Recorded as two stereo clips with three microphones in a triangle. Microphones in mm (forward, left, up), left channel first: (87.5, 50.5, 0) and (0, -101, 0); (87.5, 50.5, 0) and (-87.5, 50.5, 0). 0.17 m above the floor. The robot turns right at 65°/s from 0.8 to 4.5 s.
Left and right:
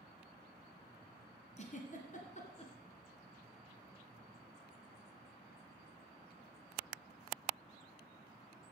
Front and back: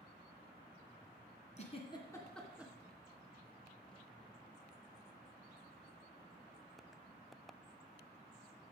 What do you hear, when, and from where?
1.6 s a giggle: 30° left, 1.9 m; by 2.7 s 105° left, 1.9 m